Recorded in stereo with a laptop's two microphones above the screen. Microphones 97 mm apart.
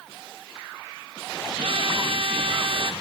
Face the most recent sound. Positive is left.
turn(degrees=-60)  # may be behind; listen again after turning